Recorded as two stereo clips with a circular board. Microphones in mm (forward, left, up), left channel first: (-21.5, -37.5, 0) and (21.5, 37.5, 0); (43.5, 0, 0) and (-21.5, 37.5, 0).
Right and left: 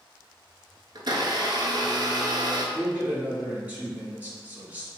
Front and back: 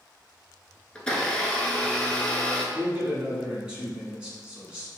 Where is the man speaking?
95° left, 1.2 m.